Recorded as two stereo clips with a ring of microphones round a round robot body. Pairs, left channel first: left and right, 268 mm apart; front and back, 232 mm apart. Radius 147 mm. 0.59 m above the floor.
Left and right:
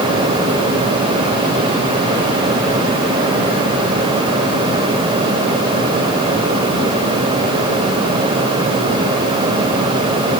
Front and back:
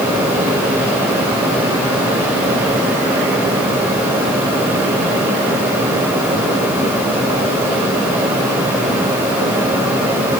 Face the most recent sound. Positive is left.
No sound to turn to.